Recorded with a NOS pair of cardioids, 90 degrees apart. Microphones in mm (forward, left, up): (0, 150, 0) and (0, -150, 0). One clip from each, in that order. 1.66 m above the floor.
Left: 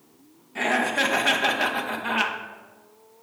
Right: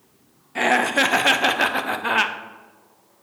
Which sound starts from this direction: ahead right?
Laughter, at 0.6 s.